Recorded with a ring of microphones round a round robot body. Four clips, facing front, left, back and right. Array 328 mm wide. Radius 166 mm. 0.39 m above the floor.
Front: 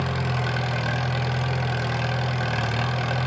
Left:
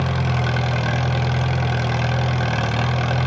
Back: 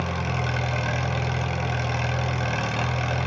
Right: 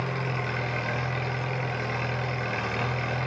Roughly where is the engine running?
Left.